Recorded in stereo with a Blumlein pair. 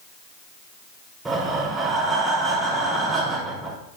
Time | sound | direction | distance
1.2 | breathing | 15° right | 5 m